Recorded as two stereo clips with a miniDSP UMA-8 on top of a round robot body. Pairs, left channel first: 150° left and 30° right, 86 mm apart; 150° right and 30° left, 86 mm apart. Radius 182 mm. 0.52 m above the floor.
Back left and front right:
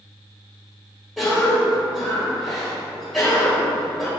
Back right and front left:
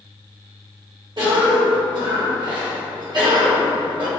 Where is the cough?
75° left, 1.4 m.